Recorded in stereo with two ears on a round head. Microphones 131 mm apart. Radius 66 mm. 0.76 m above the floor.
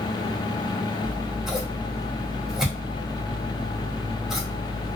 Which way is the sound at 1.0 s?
5° right (ahead or behind).